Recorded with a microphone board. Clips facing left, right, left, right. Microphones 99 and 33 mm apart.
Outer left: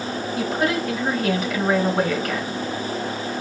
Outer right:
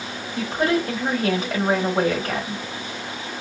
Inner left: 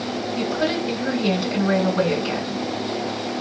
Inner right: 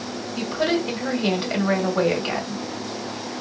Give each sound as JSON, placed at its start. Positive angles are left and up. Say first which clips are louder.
{"t": 0.3, "sound": "a woman speaking", "louder": "outer right 2 dB, inner right 1 dB", "side_deg": -35, "distance_m": 1.4}